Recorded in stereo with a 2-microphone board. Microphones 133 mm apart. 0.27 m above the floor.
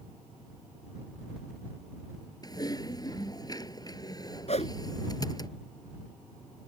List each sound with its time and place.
2.4 s typing on a keyboard: 30° left (ahead or behind)
4.5 s a whoosh: 60° left (ahead or behind)